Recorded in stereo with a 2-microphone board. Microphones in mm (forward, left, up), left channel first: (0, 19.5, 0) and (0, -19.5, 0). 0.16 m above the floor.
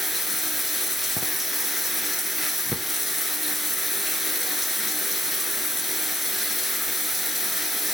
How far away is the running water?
About 0.8 m.